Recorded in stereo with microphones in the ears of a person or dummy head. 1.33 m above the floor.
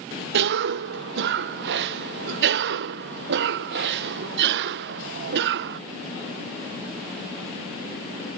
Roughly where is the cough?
Right.